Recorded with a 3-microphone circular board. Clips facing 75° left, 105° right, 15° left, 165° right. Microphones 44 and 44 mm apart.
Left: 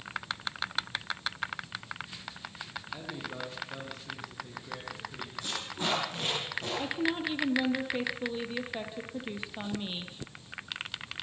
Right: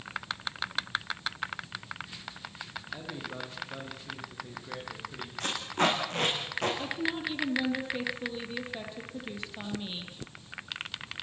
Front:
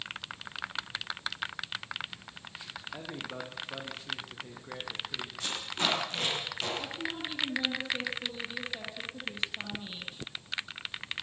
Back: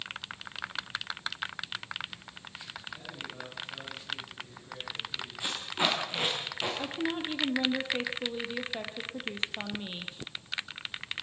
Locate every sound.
2.9 s a man speaking: 20° right, 5.5 m; by 5.3 s 35° right, 7 m
5.4 s tape being pulled: 90° right, 8.5 m
6.8 s a woman speaking: 145° left, 4 m